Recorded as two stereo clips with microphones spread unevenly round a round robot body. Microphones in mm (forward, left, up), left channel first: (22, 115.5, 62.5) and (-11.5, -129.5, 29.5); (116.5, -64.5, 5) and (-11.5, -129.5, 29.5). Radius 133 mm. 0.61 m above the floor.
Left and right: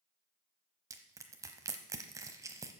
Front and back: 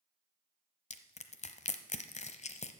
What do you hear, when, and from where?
0.9 s crushing: 15° right, 1.0 m